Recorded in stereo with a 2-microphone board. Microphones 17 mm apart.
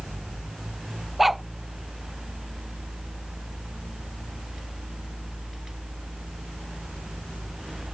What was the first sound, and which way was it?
A dog barking, 10° right (ahead or behind).